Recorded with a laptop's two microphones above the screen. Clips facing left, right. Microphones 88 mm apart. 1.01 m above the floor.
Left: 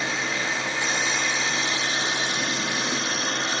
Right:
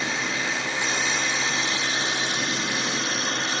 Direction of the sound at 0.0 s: 40° left (ahead or behind).